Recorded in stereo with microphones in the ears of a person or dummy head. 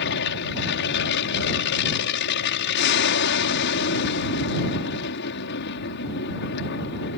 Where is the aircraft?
55° left (ahead or behind).